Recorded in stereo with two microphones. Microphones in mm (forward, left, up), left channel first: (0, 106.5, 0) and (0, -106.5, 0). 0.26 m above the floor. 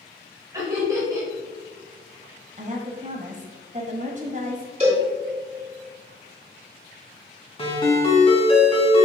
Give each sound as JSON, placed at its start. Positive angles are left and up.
{"t": 0.5, "sound": "laughter", "side_deg": -15, "distance_m": 1.8}
{"t": 2.6, "sound": "a woman speaking", "side_deg": -35, "distance_m": 1.4}
{"t": 4.8, "sound": "a cowbell", "side_deg": -30, "distance_m": 2.5}
{"t": 7.6, "sound": "a ringtone", "side_deg": 25, "distance_m": 1.9}